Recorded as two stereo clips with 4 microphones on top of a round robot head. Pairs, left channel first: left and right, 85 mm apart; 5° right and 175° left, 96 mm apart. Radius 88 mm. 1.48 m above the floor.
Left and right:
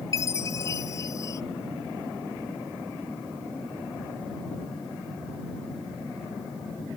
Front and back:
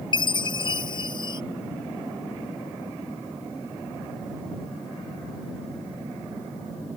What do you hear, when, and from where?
0.1 s a chime: 35° left